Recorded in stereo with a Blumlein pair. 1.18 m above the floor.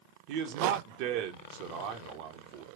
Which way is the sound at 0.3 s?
45° right.